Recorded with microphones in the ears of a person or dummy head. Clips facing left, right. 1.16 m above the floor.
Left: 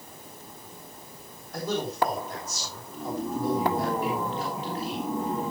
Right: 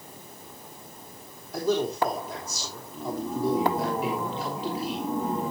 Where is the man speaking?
5° right (ahead or behind), 3 m.